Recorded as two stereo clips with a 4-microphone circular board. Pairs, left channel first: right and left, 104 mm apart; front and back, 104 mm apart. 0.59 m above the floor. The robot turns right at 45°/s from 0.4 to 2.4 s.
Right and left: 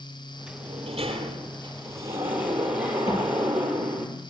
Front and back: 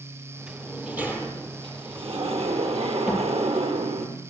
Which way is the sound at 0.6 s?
85° left.